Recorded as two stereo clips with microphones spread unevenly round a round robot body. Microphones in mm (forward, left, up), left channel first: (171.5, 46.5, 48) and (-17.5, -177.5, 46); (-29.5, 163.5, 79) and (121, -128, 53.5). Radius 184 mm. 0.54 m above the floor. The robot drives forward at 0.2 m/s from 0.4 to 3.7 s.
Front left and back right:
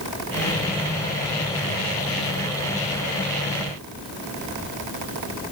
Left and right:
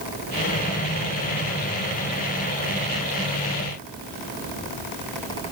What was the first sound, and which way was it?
Only background noise.